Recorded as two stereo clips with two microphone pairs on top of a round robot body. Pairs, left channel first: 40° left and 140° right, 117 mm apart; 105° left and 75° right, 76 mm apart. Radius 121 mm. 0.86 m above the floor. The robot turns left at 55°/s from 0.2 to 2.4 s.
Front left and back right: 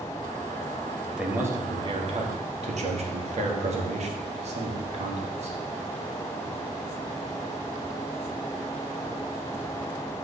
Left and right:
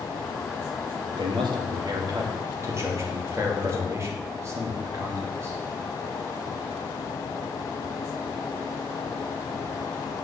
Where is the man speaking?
55° right, 1.5 m; by 5.6 s 125° right, 1.5 m.